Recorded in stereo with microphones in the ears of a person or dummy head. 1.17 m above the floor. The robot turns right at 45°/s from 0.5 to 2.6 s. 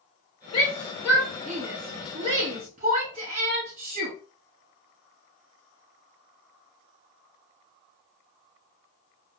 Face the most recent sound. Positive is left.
turn(degrees=-40)  # may be behind; listen again after turning